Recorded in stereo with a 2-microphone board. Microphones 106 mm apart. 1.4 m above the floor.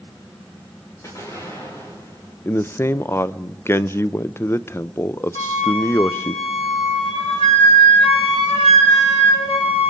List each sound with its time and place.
1.0 s an explosion: 35° left (ahead or behind), 5 m
2.5 s a man speaking: 25° left (ahead or behind), 0.5 m
5.3 s a flute: 90° left, 3 m